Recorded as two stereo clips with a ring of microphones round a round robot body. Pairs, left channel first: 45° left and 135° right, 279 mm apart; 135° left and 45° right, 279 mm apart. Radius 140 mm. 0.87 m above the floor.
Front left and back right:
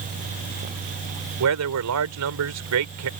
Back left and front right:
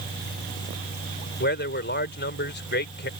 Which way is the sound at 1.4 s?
170° right.